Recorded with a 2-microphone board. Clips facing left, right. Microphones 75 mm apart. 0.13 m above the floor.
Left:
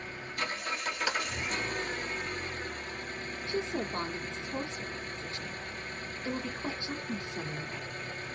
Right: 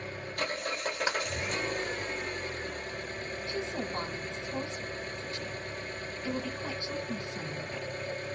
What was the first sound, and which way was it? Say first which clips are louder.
An engine running: right 1 dB; 45° right (ahead or behind).